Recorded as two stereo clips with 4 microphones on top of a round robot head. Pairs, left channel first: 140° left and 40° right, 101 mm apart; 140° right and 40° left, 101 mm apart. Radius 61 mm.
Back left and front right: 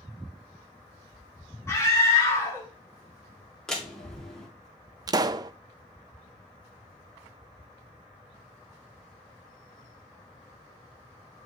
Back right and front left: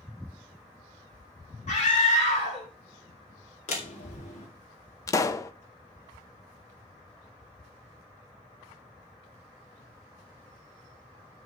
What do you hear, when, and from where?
1.7 s a scream: 155° right, 3.5 m
3.7 s a door slam: 135° right, 2.5 m
5.1 s a pop: 85° right, 0.7 m